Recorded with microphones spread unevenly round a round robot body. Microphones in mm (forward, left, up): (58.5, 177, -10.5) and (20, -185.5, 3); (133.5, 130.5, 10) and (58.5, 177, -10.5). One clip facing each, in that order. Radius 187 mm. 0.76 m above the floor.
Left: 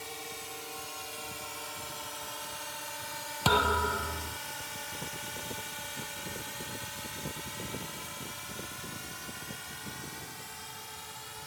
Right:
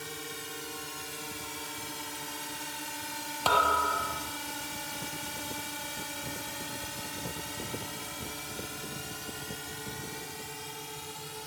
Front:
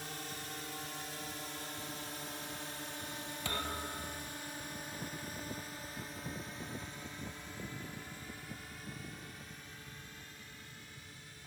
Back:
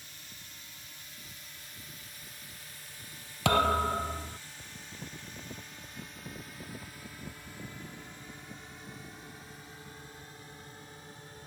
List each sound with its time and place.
0.0 s a drone: 35° right; by 11.5 s 145° right
3.5 s a thud: 145° left